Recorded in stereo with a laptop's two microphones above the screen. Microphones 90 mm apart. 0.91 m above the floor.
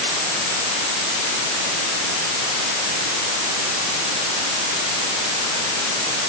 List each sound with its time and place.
Only background noise.